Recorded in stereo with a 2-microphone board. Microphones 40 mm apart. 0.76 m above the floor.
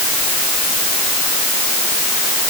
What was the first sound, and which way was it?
Only background noise.